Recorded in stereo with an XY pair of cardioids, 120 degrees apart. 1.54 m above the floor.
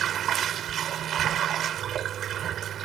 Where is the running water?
60° right.